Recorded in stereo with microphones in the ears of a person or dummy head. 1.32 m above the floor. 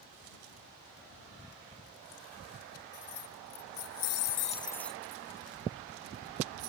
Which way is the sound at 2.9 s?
70° left (ahead or behind).